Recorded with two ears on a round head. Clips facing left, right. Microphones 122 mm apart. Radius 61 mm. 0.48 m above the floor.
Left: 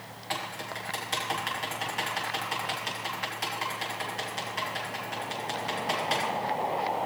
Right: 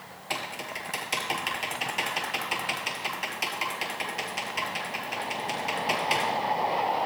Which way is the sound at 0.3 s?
15° right (ahead or behind).